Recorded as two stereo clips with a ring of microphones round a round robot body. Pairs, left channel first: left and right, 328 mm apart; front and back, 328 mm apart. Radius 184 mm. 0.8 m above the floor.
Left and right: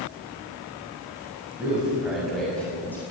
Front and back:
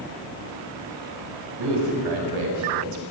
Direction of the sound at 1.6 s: 175° right.